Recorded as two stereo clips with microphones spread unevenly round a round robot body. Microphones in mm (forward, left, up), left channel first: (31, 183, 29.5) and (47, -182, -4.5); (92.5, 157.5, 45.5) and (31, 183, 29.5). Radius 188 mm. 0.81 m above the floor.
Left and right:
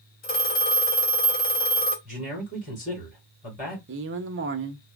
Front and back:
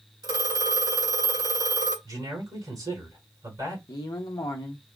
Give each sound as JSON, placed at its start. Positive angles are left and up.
{"t": 0.2, "sound": "a phone ringing", "azimuth_deg": 150, "distance_m": 2.5}
{"t": 2.0, "sound": "a man speaking", "azimuth_deg": 165, "distance_m": 3.5}
{"t": 3.9, "sound": "a man speaking", "azimuth_deg": -45, "distance_m": 0.7}